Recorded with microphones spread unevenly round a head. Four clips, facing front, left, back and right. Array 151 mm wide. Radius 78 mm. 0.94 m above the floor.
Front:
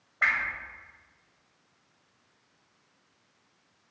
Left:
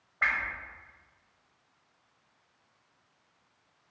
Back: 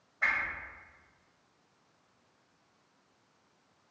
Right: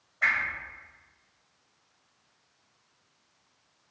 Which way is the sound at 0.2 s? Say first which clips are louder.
Right 2 dB, front 4 dB; 20° left.